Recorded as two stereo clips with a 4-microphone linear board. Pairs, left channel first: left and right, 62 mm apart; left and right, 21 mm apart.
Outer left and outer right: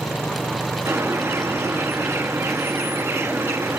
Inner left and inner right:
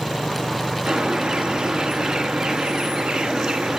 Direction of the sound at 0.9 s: 45° right (ahead or behind).